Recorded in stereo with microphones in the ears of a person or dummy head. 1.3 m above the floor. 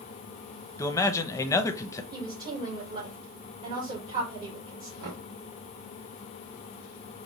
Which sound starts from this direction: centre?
A man speaking, at 0.8 s.